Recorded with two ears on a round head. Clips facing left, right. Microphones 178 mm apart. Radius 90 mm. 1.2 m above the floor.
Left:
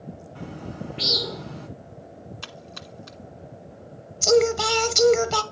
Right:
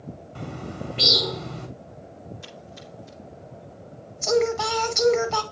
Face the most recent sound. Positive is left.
turn(degrees=40)  # may be behind; listen again after turning